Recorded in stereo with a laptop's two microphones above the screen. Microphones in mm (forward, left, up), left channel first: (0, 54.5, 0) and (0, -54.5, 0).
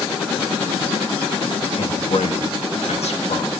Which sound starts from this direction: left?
A man speaking, at 1.8 s.